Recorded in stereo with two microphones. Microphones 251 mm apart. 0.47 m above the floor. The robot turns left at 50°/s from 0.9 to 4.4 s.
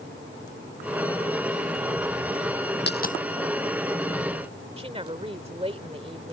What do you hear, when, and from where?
2.9 s a dropped coin: 45° left (ahead or behind); by 3.2 s 30° left (ahead or behind)
4.8 s a woman speaking: 25° right (ahead or behind)